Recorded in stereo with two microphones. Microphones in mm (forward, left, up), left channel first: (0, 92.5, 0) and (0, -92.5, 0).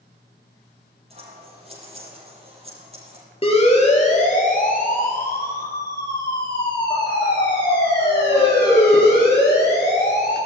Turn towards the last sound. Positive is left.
turn(degrees=70)  # may be behind; listen again after turning